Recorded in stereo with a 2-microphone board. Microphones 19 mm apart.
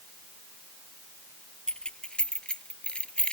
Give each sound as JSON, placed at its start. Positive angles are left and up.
{"t": 1.7, "sound": "keys jangling", "side_deg": 45}